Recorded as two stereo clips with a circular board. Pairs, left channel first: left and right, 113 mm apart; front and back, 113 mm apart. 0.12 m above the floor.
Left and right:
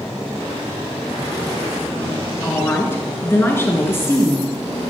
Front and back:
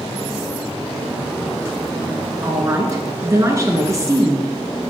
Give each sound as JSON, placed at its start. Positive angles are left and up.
{"t": 2.4, "sound": "a woman speaking", "azimuth_deg": 145, "distance_m": 1.4}